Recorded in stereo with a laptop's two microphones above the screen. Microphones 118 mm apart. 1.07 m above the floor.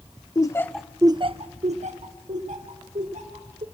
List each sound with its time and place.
0.3 s laughter: 35° left (ahead or behind), 0.8 m; by 3.6 s 80° right, 3 m